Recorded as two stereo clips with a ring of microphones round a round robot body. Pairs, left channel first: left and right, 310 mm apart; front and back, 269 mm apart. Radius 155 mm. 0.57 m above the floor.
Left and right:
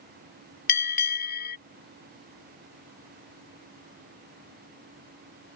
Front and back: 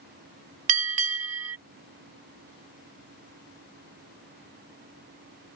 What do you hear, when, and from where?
0.7 s a bell: 150° left